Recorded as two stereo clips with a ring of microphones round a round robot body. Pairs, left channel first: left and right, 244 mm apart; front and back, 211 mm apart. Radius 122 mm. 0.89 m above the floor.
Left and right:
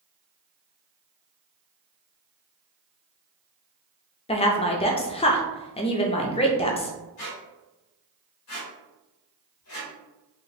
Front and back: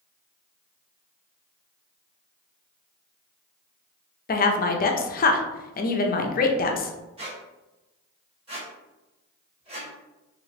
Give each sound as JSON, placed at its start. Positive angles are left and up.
{"t": 4.3, "sound": "a woman speaking", "azimuth_deg": 30, "distance_m": 0.5}
{"t": 7.2, "sound": "a squeak", "azimuth_deg": 115, "distance_m": 1.5}